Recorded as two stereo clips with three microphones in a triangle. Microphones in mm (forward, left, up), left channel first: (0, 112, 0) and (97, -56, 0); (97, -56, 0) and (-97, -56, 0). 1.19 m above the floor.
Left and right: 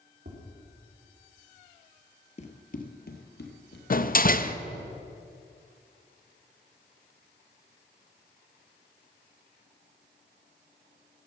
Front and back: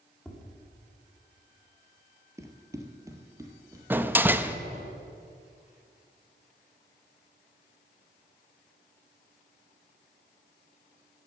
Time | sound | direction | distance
0.2 | tapping | 85° right | 3 m
2.4 | running footsteps | 120° left | 1.4 m
3.9 | a door slam | 105° left | 0.5 m